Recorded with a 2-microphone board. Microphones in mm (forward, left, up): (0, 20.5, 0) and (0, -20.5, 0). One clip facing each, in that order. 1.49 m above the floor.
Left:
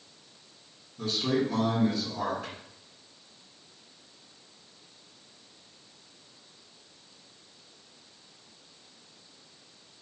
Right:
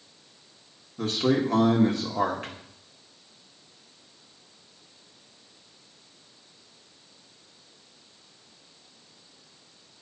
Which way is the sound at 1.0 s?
55° right (ahead or behind).